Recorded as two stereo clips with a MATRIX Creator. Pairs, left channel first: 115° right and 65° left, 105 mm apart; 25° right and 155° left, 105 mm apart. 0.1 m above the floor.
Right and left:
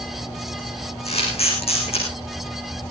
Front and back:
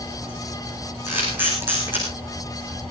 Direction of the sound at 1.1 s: 130° right.